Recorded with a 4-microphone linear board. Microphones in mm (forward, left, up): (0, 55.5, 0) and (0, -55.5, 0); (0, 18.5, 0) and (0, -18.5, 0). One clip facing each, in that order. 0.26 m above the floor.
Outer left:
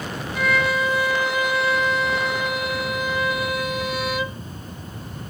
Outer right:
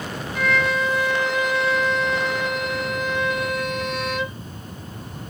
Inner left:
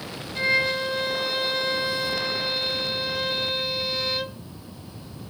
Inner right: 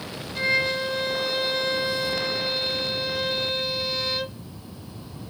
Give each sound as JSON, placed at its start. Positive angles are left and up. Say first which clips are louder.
{"t": 0.3, "sound": "a violin", "louder": "even, inner left 1 dB", "side_deg": 5, "distance_m": 0.8}